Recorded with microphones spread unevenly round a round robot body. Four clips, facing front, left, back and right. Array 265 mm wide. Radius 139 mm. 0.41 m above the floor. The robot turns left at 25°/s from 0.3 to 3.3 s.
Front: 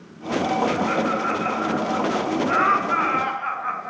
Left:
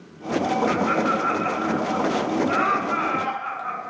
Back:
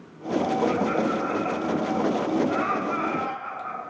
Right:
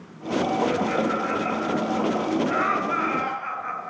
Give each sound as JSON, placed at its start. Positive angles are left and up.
{"t": 0.7, "sound": "laughter", "azimuth_deg": 70, "distance_m": 5.0}